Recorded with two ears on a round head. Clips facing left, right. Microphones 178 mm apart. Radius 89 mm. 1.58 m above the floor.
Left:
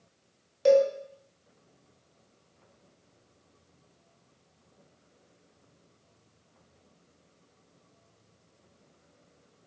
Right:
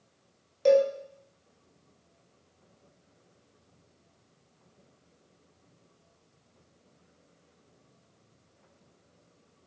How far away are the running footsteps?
No running footsteps in this recording.